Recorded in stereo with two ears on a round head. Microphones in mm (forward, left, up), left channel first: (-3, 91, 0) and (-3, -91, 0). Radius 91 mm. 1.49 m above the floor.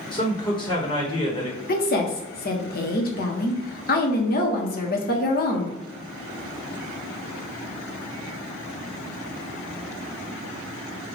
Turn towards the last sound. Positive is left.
turn(degrees=45)  # may be behind; listen again after turning